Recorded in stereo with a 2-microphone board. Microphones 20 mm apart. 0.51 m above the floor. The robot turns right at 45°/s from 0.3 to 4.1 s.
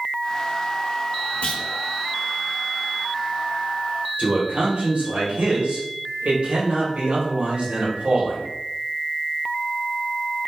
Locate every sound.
1.4 s a clunk: 60° left (ahead or behind), 1.1 m
4.2 s a man speaking: 65° right (ahead or behind), 1.8 m